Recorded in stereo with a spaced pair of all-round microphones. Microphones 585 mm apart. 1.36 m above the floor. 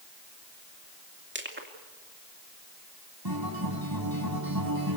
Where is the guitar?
40° right (ahead or behind), 4 m.